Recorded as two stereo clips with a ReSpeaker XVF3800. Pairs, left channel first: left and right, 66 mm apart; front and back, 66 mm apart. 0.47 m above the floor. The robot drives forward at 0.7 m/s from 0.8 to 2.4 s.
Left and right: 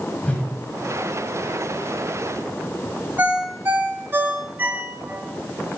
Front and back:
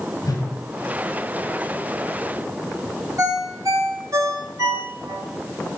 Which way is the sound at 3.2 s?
150° right.